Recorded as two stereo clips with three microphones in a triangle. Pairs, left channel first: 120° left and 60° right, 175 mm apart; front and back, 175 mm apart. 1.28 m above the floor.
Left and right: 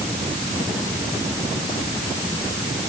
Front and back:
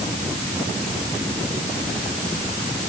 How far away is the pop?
No pop in this recording.